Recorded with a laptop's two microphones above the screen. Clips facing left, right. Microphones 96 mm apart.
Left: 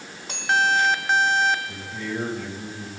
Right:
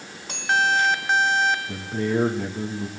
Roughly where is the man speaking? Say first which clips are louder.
Right 6 dB; right.